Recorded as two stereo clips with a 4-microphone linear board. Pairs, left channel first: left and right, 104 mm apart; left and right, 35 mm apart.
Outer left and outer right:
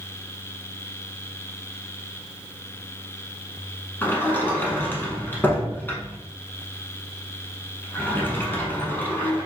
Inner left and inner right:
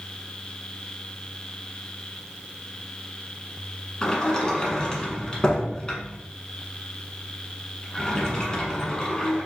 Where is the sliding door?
20° left (ahead or behind), 0.7 m.